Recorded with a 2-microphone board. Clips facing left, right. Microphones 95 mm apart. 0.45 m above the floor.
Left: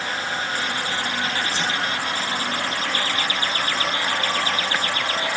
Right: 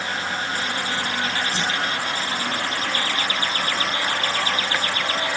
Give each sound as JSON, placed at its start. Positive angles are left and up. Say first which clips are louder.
{"t": 1.5, "sound": "a whoosh", "louder": "even", "side_deg": -45, "distance_m": 4.5}